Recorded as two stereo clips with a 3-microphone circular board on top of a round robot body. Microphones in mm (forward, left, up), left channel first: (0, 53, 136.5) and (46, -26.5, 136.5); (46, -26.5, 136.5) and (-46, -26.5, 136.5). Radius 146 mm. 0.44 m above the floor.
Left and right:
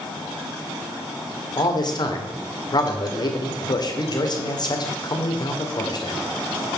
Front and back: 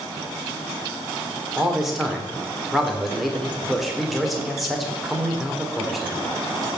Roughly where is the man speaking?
Left.